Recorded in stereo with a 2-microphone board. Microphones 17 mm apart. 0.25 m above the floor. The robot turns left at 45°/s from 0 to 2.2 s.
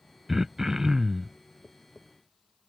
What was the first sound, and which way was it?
Throat clearing, 50° right.